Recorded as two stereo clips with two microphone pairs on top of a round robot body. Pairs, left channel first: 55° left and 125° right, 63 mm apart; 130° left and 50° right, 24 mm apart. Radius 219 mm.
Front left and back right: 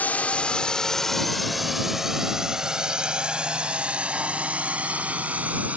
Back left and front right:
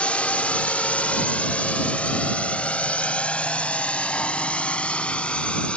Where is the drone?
120° left; by 5.8 s 170° left.